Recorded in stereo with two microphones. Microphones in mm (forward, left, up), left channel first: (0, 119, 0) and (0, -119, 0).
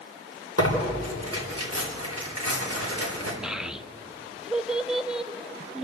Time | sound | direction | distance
0.6 | tearing paper | 75° right (ahead or behind) | 3.5 m
3.4 | a child speaking | 5° right (ahead or behind) | 0.7 m